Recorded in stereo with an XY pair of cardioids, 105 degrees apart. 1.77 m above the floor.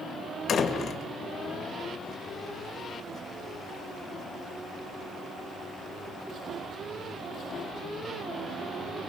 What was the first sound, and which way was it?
A door slam, 50° left.